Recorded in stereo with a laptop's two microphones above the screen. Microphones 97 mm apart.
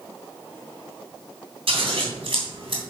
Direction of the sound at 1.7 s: 80° right.